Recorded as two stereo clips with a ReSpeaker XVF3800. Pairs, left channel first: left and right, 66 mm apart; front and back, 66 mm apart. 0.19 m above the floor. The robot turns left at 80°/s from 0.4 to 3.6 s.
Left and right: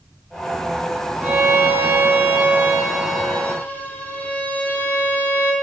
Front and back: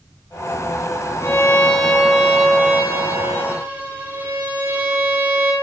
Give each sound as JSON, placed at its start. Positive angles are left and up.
{"t": 1.2, "sound": "a violin", "azimuth_deg": -35, "distance_m": 0.6}